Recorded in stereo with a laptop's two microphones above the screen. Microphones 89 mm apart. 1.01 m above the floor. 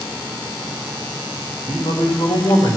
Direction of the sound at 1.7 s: 75° left (ahead or behind).